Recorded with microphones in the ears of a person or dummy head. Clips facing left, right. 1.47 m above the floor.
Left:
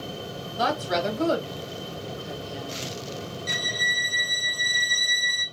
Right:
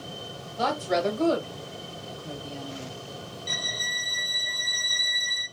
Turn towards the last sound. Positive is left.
turn(degrees=10)  # may be behind; listen again after turning